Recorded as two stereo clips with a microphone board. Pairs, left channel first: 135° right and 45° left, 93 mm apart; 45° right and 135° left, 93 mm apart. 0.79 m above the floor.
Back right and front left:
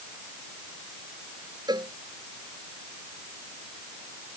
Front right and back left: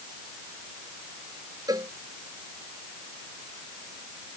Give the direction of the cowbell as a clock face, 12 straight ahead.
9 o'clock.